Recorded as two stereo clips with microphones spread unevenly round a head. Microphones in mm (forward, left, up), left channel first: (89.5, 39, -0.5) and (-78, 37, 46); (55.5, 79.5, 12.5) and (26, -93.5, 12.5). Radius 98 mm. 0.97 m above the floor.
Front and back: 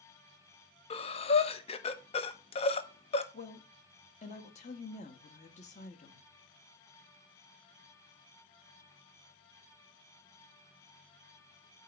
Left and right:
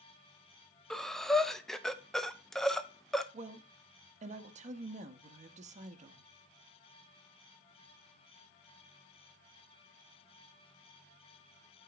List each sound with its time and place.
0.9 s breathing: 5° right, 0.6 m
3.3 s a woman speaking: 50° right, 1.0 m